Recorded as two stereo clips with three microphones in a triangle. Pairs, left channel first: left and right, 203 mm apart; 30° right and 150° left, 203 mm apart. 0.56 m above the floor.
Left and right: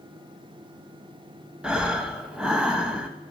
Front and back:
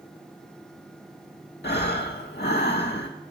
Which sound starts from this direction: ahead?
Breathing, at 1.6 s.